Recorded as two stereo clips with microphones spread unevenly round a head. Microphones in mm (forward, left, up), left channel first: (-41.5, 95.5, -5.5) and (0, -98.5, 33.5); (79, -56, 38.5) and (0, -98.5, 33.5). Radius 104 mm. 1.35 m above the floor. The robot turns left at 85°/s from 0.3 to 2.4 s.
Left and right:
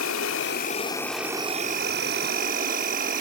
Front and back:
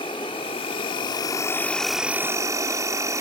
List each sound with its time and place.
0.0 s an insect: 75° left, 1.3 m; by 3.2 s 100° right, 1.3 m